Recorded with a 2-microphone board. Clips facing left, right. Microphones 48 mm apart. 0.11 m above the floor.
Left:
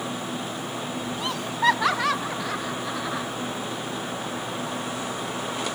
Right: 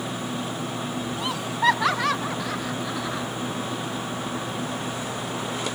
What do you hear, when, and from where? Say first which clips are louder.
1.2 s laughter: even; 5° right (ahead or behind); by 3.3 s 5° left (ahead or behind)